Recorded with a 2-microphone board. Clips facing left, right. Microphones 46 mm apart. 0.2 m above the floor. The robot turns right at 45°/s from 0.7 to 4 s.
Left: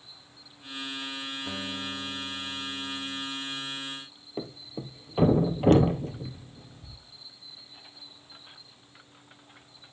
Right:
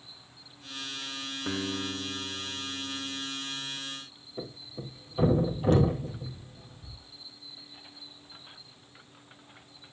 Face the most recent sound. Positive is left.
turn(degrees=55)  # may be behind; listen again after turning